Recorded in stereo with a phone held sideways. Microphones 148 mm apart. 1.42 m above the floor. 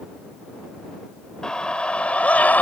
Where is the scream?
5° left (ahead or behind); by 2.6 s 10° left (ahead or behind).